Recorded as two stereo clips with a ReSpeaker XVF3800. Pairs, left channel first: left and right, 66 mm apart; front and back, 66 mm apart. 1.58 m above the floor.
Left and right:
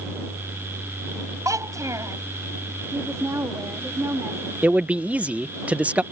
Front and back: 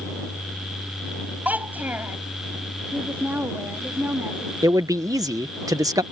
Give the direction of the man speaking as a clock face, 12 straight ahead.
5 o'clock.